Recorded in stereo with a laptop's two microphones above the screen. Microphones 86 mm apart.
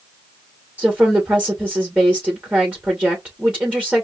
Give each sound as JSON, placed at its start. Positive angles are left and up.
{"t": 0.8, "sound": "a woman speaking", "side_deg": -15, "distance_m": 2.0}